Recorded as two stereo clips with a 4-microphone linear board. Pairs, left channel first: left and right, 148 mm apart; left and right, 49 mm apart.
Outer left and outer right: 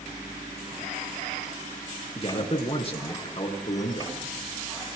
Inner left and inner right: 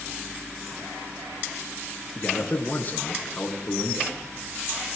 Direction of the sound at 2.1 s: 40° left (ahead or behind).